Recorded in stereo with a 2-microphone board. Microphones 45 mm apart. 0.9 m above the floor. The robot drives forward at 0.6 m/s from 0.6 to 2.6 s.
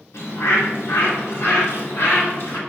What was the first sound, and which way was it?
A bird, 70° left (ahead or behind).